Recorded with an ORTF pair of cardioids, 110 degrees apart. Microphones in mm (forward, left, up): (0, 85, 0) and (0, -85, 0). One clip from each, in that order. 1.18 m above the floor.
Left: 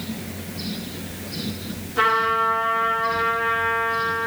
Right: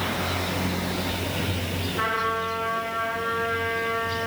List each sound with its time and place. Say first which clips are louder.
2.0 s a trumpet: left 7 dB; 40° left, 8.5 m